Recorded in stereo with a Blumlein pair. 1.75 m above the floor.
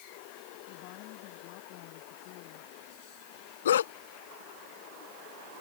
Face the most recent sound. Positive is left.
turn(degrees=60)